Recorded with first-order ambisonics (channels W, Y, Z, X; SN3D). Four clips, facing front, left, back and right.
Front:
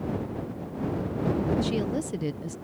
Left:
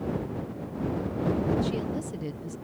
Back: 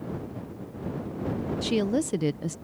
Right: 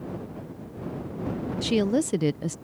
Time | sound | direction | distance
1.6 | a woman speaking | 110° right | ?